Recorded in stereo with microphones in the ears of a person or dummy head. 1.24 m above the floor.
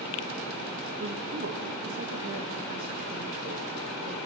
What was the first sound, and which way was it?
A man speaking, 55° right (ahead or behind).